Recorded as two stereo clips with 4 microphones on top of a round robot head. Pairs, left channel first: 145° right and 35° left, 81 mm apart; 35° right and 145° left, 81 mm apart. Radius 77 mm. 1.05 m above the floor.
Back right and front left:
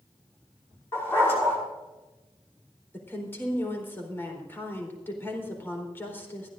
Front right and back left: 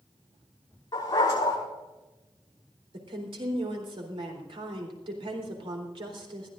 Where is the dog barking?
85° right, 5.5 m.